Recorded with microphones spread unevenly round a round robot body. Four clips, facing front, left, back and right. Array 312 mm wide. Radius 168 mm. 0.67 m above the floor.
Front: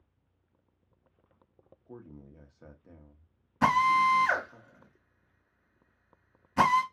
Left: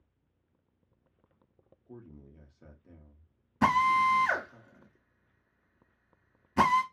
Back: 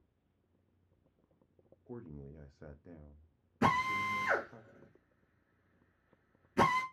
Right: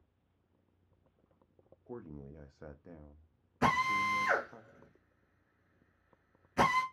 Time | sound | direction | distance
1.9 | a man speaking | 120° right | 0.5 m
3.6 | a drill | 100° left | 1.5 m